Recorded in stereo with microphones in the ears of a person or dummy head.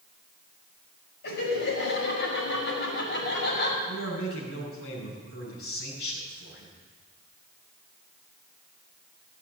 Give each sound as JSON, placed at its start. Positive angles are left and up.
{"t": 1.2, "sound": "laughter", "side_deg": 55, "distance_m": 6.0}
{"t": 3.9, "sound": "a man speaking", "side_deg": 50, "distance_m": 6.5}